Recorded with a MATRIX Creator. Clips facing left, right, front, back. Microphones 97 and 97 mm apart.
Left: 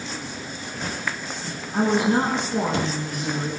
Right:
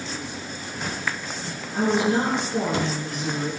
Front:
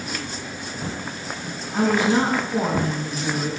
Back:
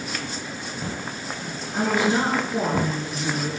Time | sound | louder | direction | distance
1.7 | a woman speaking | left 1 dB, front 3 dB | 50° left | 3 m